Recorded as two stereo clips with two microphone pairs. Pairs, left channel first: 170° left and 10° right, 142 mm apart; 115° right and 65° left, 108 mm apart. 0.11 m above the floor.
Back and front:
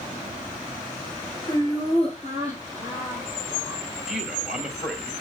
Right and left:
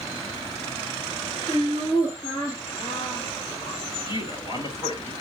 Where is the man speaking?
100° right, 2 m.